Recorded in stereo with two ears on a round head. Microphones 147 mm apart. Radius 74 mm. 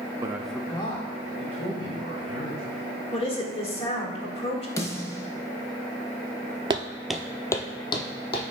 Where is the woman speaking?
35° left (ahead or behind), 1.5 m.